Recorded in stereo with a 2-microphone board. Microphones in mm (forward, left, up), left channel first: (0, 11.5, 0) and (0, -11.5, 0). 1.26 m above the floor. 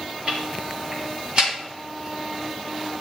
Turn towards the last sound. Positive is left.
turn(degrees=-35)  # may be behind; listen again after turning